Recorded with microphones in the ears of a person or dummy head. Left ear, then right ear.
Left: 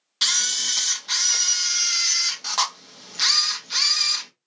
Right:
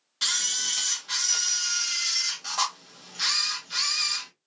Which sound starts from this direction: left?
A camera shutter, at 0.2 s.